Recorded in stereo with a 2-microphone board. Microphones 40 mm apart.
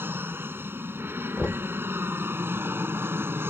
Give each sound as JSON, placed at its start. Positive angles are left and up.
{"t": 0.0, "sound": "an aircraft", "side_deg": -65}
{"t": 1.4, "sound": "knocking", "side_deg": 30}